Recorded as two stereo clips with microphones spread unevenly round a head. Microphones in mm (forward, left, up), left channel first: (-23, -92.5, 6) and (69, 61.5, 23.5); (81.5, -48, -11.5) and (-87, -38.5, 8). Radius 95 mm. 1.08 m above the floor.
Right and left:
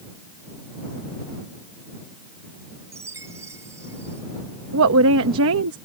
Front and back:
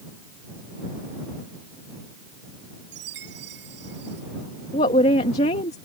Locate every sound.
2.9 s a chime: 135° left
4.7 s a woman speaking: 55° left